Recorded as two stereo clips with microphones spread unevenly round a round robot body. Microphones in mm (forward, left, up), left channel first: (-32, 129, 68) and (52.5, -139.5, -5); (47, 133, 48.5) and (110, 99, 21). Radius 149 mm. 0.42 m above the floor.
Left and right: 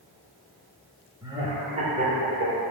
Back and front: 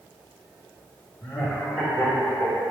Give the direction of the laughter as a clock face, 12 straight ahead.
3 o'clock.